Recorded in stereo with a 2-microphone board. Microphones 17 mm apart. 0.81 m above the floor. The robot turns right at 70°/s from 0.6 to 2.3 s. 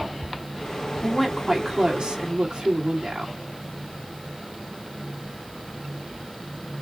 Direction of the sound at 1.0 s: 170° left.